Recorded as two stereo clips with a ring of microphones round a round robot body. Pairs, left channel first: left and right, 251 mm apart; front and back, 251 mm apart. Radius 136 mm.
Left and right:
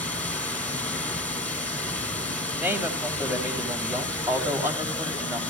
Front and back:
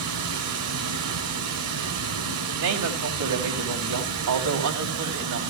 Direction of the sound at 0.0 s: 175° left.